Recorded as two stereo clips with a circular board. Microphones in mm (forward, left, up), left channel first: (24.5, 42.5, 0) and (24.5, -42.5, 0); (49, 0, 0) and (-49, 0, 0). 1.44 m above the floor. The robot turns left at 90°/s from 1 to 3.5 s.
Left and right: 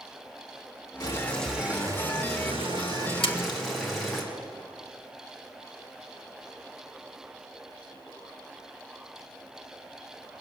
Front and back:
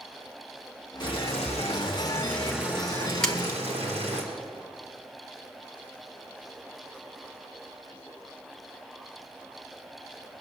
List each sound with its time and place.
1.0 s boiling: 45° left, 2.5 m; by 4.2 s straight behind, 2.5 m
3.2 s a splash: 85° left, 1.0 m; by 3.6 s 60° left, 1.0 m